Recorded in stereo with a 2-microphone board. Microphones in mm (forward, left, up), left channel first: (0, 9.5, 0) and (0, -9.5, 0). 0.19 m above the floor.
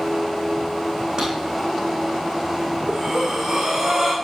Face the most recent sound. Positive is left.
turn(degrees=-35)  # may be behind; listen again after turning